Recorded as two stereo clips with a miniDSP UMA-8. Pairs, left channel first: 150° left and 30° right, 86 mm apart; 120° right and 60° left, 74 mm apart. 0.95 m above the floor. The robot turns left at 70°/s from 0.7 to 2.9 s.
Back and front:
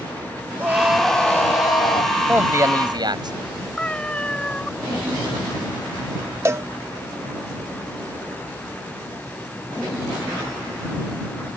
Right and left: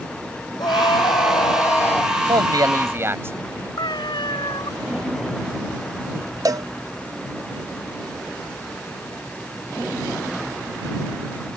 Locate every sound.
0.6 s a scream: 95° right; by 2.1 s 160° left
2.3 s a man speaking: 45° left; by 3.7 s 5° left
3.8 s a cat meowing: 130° right
6.5 s a cowbell: 30° left